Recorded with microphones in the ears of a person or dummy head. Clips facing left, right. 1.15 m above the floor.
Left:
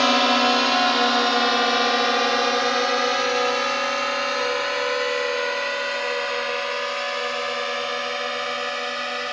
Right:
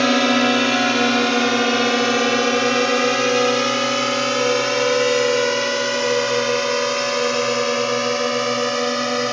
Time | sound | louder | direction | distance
0.0 | a drone | right 4 dB | 25° right (ahead or behind) | ?